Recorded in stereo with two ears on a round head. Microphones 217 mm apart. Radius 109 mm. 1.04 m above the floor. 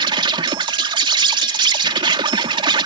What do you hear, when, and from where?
0.0 s an insect: 20° right (ahead or behind)